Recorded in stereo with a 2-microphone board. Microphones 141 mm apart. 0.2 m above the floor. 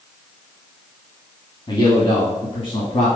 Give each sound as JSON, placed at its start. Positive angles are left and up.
{"t": 1.7, "sound": "a man speaking", "side_deg": 35, "distance_m": 1.3}